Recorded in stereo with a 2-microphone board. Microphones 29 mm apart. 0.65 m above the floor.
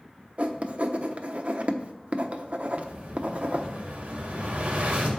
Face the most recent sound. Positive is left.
turn(degrees=-65)  # may be behind; listen again after turning